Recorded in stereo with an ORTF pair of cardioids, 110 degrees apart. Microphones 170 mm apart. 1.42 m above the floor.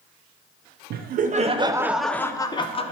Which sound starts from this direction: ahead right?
Laughter, at 0.9 s.